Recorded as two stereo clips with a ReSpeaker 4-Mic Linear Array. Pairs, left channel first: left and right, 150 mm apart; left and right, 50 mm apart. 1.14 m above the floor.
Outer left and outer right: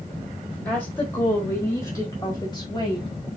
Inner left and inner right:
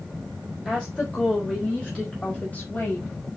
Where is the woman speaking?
10° left (ahead or behind), 4 m; by 3.1 s 30° left (ahead or behind), 5 m.